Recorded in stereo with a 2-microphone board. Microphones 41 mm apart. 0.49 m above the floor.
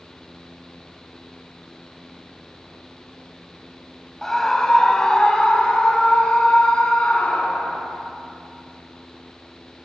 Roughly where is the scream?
Centre.